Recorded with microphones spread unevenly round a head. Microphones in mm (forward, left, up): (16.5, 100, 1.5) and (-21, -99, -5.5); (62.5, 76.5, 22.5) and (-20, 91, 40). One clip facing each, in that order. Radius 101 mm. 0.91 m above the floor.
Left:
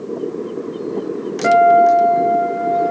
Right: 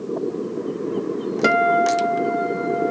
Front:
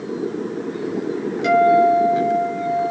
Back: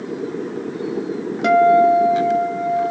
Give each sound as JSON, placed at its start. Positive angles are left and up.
{"t": 1.4, "sound": "a guitar", "azimuth_deg": -135, "distance_m": 1.0}